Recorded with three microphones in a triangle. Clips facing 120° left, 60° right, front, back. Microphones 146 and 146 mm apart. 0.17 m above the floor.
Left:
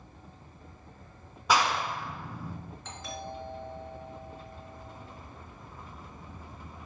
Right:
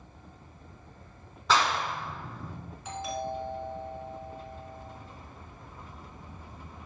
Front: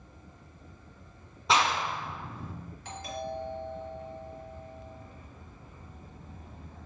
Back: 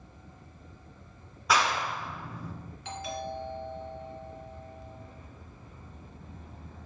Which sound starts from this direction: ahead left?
A clap, at 1.5 s.